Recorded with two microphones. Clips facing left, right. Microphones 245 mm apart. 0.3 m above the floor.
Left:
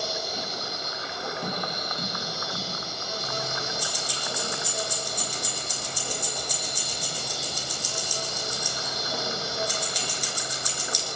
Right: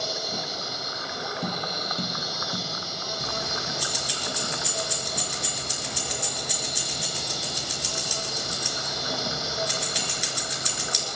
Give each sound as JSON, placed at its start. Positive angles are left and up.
{"t": 0.0, "sound": "an insect", "side_deg": -85, "distance_m": 7.0}
{"t": 1.4, "sound": "tapping", "side_deg": -20, "distance_m": 3.0}
{"t": 3.2, "sound": "keys jangling", "side_deg": -75, "distance_m": 3.0}